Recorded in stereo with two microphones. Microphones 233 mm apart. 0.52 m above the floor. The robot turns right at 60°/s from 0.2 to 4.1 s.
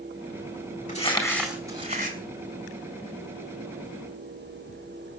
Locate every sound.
0.9 s crumpling: 145° left, 4 m; by 2.2 s 135° right, 4 m